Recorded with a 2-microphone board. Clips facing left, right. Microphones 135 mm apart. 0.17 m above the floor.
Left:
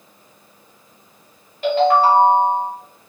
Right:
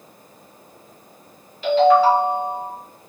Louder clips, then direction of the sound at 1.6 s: Right 1 dB; 50° left (ahead or behind).